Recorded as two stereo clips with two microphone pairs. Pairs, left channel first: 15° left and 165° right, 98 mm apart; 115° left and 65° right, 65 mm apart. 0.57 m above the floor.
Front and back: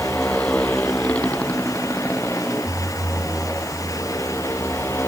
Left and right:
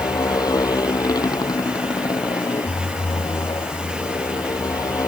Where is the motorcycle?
95° left; by 5.1 s 85° left.